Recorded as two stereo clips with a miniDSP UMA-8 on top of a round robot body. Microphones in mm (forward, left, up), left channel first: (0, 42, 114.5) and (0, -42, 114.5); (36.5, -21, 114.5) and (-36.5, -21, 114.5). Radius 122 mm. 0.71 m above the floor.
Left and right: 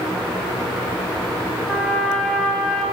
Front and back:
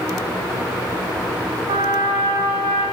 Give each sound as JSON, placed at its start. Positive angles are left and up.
{"t": 1.7, "sound": "a trumpet", "azimuth_deg": 175, "distance_m": 0.6}